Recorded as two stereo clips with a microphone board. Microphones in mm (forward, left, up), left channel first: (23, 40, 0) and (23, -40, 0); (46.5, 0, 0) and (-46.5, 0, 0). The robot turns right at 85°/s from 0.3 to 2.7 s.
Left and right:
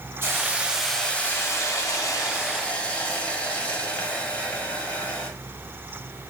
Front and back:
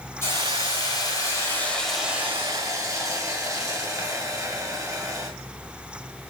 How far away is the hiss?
About 1.9 m.